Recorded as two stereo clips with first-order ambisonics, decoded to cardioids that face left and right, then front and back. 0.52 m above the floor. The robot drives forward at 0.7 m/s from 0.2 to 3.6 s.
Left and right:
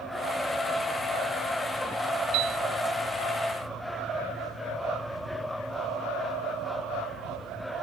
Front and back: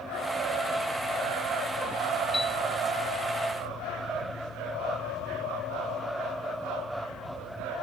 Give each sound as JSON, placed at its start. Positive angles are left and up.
{"t": 2.3, "sound": "a piano", "azimuth_deg": -80}